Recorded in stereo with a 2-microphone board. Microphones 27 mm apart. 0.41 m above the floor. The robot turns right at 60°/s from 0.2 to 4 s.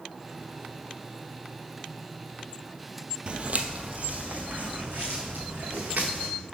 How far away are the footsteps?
About 0.5 m.